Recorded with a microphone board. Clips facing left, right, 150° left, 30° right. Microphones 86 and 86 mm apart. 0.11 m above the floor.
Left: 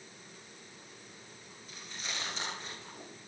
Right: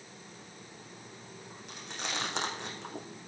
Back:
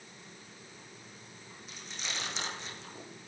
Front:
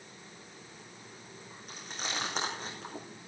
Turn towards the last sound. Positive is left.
turn(degrees=-75)